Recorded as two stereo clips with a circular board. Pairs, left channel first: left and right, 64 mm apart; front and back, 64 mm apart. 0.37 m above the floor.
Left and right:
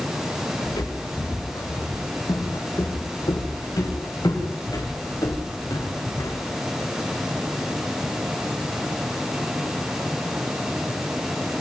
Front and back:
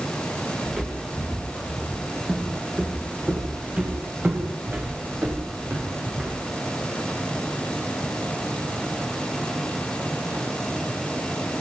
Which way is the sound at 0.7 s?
95° left.